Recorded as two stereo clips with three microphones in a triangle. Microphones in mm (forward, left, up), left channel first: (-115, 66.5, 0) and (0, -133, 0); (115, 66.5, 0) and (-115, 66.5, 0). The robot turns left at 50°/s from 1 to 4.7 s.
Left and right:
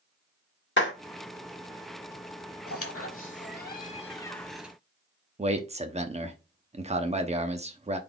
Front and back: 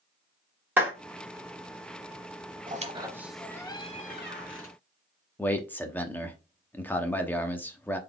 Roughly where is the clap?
Left.